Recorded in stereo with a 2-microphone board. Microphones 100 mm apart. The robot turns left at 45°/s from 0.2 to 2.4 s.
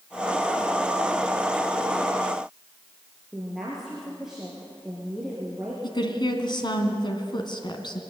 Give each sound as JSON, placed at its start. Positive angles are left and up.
{"t": 3.3, "sound": "a woman speaking", "side_deg": -5, "distance_m": 5.0}
{"t": 5.8, "sound": "a woman speaking", "side_deg": 50, "distance_m": 3.0}